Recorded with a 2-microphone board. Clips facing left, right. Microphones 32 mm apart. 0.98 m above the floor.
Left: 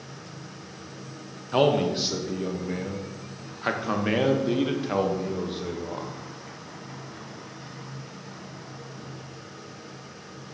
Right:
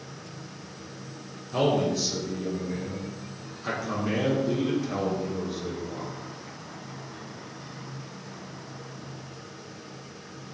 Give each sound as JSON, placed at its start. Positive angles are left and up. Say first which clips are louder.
{"t": 1.5, "sound": "a man speaking", "louder": "left 3 dB", "side_deg": 40, "distance_m": 0.8}